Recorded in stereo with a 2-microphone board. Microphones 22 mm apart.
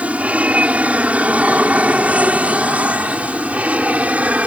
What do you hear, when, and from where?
0.0 s an aircraft: 70° right (ahead or behind); by 4.5 s 75° right (ahead or behind)